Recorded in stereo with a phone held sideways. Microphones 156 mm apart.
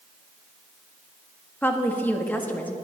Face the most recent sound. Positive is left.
turn(degrees=10)  # may be behind; listen again after turning